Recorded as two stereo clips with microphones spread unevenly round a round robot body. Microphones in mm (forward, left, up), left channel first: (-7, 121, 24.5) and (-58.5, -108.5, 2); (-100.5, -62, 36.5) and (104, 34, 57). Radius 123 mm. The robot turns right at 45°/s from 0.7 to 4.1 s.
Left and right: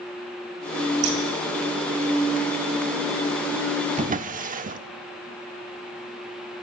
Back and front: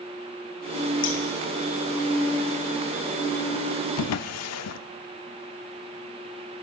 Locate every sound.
1.0 s scissors: 125° right, 2.5 m; by 1.2 s 115° right, 2.5 m
4.0 s a drawer: 165° right, 0.6 m; by 4.8 s 160° right, 0.6 m